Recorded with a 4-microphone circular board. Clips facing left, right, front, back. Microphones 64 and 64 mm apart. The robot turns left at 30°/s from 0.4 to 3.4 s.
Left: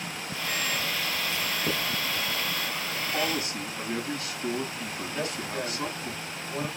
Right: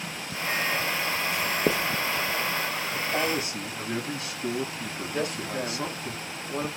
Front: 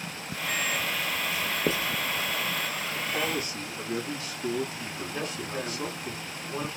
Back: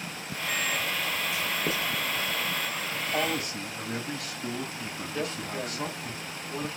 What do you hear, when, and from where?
1.3 s writing: 50° right, 0.5 m; by 1.9 s 70° right, 0.5 m
2.9 s a man speaking: 135° right, 4 m; by 6.1 s 145° right, 4 m
5.1 s a man speaking: 80° right, 1.3 m